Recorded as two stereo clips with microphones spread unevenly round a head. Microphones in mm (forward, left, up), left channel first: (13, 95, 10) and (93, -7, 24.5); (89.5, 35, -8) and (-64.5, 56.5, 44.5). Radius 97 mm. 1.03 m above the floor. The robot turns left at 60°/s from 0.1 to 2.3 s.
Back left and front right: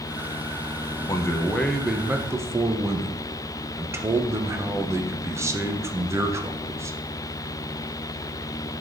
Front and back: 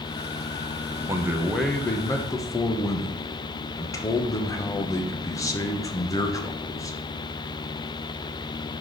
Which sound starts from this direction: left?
A man speaking, at 1.1 s.